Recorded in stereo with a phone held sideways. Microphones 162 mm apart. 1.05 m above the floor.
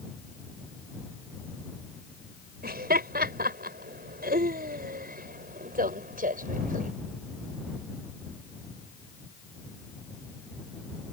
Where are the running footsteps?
No running footsteps in this recording.